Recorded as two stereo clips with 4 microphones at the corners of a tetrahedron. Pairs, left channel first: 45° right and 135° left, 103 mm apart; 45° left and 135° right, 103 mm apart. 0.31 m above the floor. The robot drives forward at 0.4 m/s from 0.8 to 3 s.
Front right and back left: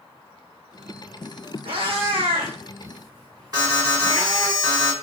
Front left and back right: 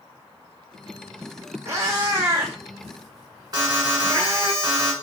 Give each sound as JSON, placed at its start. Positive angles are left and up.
{"t": 1.6, "sound": "a cat meowing", "azimuth_deg": 160, "distance_m": 1.3}
{"t": 3.5, "sound": "an alarm", "azimuth_deg": 180, "distance_m": 1.6}